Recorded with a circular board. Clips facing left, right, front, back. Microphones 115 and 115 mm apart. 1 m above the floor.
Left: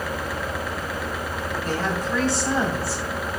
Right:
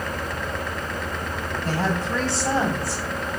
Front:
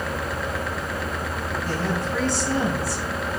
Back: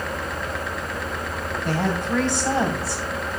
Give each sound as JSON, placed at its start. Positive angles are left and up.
{"t": 1.6, "sound": "a woman speaking", "azimuth_deg": -155, "distance_m": 7.5}